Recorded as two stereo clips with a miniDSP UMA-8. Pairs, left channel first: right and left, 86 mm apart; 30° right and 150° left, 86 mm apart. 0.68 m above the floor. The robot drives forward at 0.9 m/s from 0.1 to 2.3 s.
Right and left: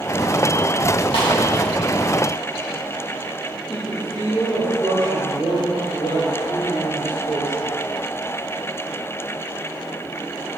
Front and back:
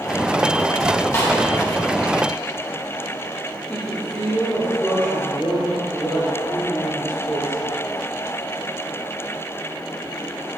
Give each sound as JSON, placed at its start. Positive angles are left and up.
{"t": 1.1, "sound": "a snare drum", "azimuth_deg": -85, "distance_m": 1.7}
{"t": 3.7, "sound": "a woman speaking", "azimuth_deg": -95, "distance_m": 2.0}